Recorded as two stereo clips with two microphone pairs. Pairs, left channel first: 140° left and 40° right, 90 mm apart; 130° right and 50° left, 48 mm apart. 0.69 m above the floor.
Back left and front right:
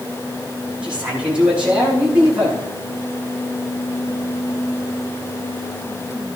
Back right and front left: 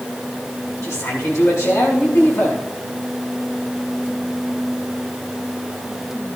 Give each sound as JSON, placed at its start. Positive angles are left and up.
{"t": 0.8, "sound": "a man speaking", "azimuth_deg": -120, "distance_m": 7.0}